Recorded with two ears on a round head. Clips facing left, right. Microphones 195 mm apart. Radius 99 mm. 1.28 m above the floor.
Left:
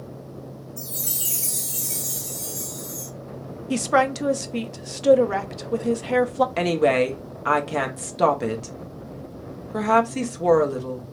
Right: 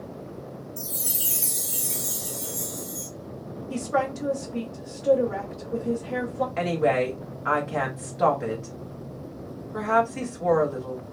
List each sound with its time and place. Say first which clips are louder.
0.8 s a chime: even; 15° right (ahead or behind), 1.7 m
3.7 s a woman speaking: left 5 dB; 75° left (ahead or behind), 0.6 m
6.6 s a woman speaking: left 3 dB; 45° left (ahead or behind), 0.8 m